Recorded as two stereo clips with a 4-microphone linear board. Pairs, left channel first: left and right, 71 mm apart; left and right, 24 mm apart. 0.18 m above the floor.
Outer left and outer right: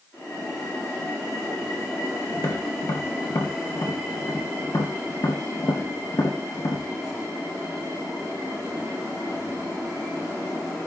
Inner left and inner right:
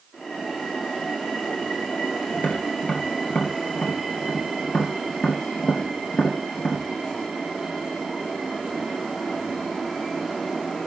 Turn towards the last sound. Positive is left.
turn(degrees=65)  # may be behind; listen again after turning